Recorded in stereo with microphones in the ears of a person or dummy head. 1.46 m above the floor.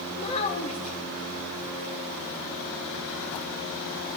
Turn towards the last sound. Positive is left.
turn(degrees=35)  # may be behind; listen again after turning